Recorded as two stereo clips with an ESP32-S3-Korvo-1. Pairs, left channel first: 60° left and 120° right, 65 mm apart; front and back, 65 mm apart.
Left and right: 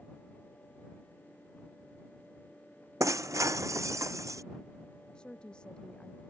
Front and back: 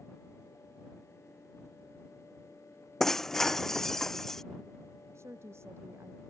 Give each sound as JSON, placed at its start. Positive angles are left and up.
{"t": 3.0, "sound": "breaking glass", "azimuth_deg": -85}
{"t": 5.2, "sound": "a woman speaking", "azimuth_deg": 135}